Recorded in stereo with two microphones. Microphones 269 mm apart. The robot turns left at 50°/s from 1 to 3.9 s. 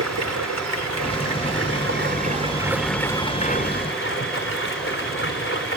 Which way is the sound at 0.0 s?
85° right.